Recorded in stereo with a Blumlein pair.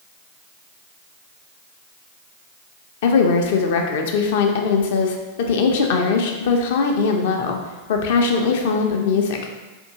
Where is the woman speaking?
55° left, 0.5 m.